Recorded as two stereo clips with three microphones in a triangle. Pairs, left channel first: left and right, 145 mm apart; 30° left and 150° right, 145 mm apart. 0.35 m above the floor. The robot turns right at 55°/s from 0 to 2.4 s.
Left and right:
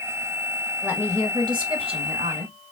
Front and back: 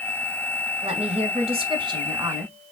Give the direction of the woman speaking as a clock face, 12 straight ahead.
6 o'clock.